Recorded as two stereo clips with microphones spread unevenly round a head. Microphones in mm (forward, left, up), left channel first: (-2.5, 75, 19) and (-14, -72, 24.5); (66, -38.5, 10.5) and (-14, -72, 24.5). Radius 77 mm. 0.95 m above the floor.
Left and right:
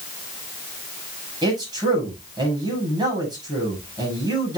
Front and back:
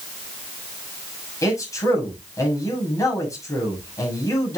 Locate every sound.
1.4 s a man speaking: 30° right, 7 m